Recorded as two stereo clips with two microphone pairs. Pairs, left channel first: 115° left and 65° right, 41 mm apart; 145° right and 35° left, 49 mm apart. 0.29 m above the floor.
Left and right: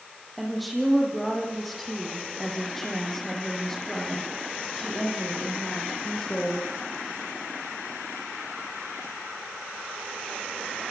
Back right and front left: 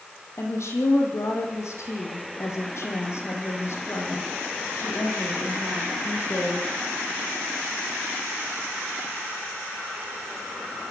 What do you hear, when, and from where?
0.4 s a woman speaking: 150° right, 9.5 m; by 6.7 s 170° right, 11.5 m